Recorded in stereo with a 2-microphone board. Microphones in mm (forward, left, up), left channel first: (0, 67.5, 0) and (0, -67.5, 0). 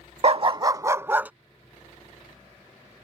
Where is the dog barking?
50° right (ahead or behind); by 1.3 s 10° right (ahead or behind).